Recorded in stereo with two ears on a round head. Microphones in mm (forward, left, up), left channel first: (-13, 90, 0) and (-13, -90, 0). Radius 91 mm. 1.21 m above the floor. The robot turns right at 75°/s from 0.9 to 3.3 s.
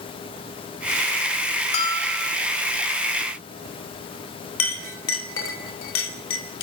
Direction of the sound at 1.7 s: 145° left.